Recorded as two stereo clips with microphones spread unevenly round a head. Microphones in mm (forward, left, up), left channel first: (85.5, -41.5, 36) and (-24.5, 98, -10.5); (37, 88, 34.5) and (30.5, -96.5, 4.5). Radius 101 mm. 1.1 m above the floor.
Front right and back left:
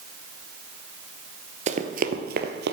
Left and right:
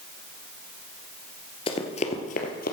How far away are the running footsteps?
About 1.3 m.